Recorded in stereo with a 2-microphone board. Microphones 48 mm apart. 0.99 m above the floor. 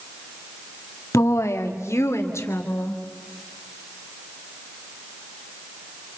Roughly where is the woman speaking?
Left.